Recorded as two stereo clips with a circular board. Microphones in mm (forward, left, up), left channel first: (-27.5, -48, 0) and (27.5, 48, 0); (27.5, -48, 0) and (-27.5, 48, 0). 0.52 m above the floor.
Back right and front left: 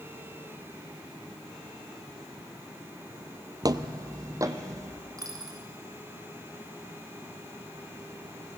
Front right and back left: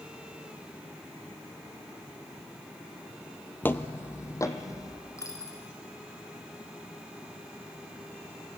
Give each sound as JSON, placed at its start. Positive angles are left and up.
{"t": 3.6, "sound": "footsteps", "azimuth_deg": 10, "distance_m": 0.9}
{"t": 5.2, "sound": "a dropped coin", "azimuth_deg": 0, "distance_m": 3.0}